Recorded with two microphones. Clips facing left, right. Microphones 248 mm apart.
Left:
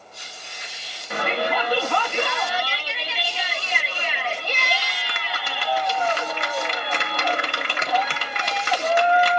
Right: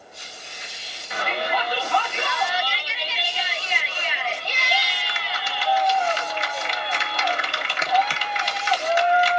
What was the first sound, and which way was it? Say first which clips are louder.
A shout: left 3 dB; 55° left (ahead or behind).